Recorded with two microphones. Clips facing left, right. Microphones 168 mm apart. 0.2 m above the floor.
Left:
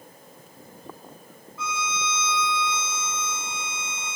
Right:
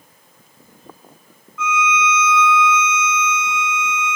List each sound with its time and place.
1.6 s a violin: 40° left (ahead or behind), 0.8 m